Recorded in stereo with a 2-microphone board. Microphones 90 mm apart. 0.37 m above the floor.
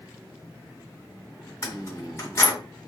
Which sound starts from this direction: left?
Keys jangling, at 1.6 s.